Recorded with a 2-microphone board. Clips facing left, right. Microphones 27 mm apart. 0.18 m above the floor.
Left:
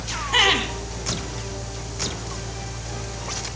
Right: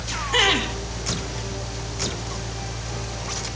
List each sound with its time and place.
0.3 s laughter: 10° left (ahead or behind), 1.8 m